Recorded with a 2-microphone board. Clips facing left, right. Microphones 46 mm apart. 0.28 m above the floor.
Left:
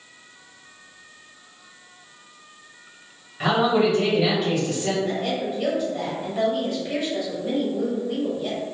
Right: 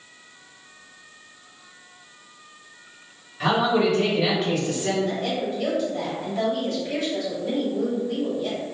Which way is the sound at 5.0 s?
10° left (ahead or behind).